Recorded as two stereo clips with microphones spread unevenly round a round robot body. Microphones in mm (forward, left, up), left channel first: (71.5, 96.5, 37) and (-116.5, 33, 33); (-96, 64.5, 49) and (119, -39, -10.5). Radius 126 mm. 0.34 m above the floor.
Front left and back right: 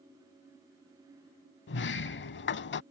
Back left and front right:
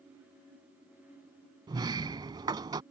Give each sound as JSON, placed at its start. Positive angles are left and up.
{"t": 1.7, "sound": "a sliding door", "azimuth_deg": 50}